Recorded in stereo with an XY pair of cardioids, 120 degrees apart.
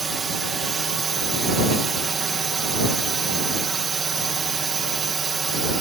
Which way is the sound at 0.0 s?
35° right.